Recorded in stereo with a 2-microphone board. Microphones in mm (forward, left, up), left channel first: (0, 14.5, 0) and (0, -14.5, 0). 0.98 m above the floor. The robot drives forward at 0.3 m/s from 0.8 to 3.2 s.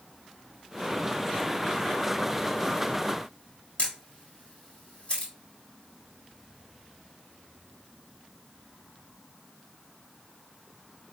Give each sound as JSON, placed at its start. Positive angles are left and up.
{"t": 3.8, "sound": "a camera shutter", "side_deg": 55, "distance_m": 1.4}